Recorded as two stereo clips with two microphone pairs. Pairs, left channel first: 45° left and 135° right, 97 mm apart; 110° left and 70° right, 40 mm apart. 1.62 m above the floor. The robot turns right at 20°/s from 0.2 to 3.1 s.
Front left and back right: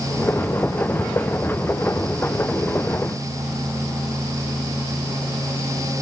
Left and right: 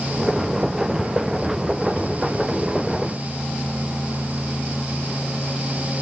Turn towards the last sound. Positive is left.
No sound to turn to.